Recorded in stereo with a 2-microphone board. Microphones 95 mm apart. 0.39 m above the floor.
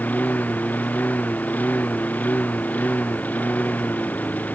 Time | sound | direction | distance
0.0 | a lawn mower | 20° left (ahead or behind) | ?